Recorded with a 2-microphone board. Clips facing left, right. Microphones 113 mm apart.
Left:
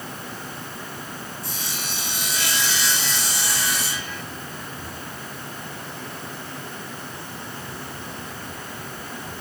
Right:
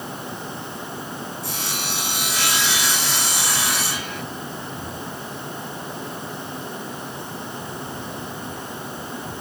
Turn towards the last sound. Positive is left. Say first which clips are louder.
# right 4 dB
turn(degrees=-70)  # may be behind; listen again after turning